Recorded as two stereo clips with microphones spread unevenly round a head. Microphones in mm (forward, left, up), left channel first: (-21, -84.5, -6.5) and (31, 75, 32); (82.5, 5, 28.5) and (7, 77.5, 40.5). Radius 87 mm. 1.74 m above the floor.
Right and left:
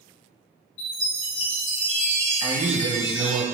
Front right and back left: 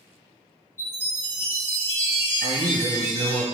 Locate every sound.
0.8 s a chime: 120° right, 4 m
2.4 s a man speaking: 150° left, 1.7 m